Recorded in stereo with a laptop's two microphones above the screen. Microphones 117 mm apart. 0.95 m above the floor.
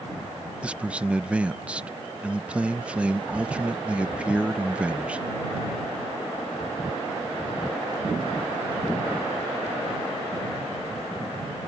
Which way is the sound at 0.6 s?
10° right (ahead or behind).